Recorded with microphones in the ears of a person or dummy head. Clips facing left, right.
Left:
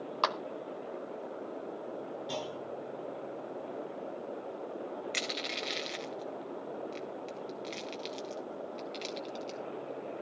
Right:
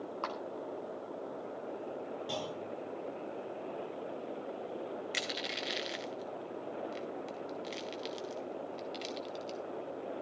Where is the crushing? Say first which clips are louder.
Left 1 dB; centre (ahead or behind), 1.1 m.